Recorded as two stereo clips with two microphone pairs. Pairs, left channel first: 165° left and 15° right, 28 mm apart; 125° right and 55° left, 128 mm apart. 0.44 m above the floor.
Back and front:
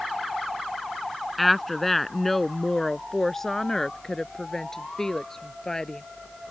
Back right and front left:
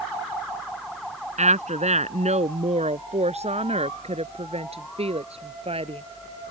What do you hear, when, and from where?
1.4 s a woman speaking: 80° left; by 6.0 s 95° left